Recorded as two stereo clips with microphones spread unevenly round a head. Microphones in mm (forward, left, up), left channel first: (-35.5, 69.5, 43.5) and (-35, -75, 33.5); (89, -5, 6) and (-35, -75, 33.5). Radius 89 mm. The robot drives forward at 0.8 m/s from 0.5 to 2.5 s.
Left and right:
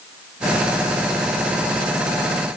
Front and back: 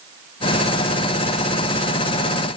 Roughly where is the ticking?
No ticking in this recording.